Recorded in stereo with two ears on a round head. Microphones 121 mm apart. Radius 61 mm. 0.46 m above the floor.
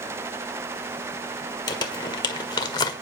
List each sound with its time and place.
1.7 s crumpling: 35° left (ahead or behind), 1.6 m